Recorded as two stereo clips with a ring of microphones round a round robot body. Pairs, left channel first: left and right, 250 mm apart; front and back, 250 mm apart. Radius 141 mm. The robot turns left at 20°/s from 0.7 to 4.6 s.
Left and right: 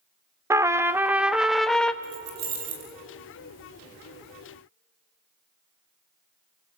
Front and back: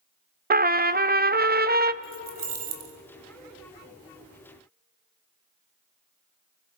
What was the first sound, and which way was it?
A trumpet, 160° right.